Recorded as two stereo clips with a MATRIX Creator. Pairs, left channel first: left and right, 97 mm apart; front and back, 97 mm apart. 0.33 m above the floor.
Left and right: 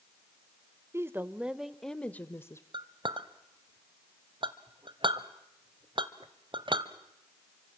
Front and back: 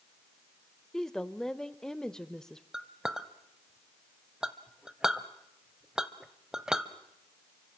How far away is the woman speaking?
About 0.9 m.